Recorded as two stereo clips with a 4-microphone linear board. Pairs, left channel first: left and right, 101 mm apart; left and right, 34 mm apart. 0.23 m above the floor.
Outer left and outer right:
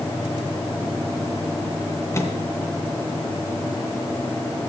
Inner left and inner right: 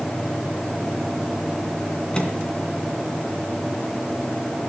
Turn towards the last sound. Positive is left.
turn(degrees=25)  # may be behind; listen again after turning